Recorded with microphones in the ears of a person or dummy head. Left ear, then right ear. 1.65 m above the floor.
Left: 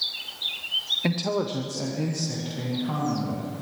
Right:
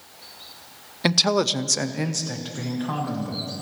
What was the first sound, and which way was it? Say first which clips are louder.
A man speaking: right 7 dB; 45° right (ahead or behind).